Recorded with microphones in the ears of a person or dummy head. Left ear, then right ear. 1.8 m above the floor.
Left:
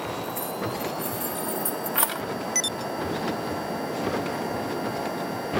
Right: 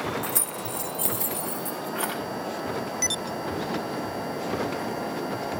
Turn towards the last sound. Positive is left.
turn(degrees=45)  # may be behind; listen again after turning